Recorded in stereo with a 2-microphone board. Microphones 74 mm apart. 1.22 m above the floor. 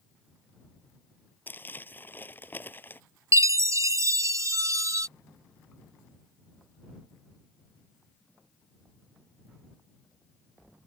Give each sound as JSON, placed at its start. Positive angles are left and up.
{"t": 1.5, "sound": "crumpling", "side_deg": 30}
{"t": 3.3, "sound": "a chime", "side_deg": -45}